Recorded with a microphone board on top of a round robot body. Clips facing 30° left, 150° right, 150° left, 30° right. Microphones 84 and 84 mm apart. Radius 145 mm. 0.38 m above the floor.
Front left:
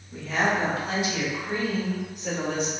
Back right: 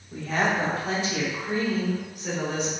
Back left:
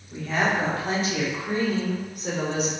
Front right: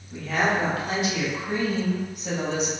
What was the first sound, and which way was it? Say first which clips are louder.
A woman speaking: even, even; 150° right.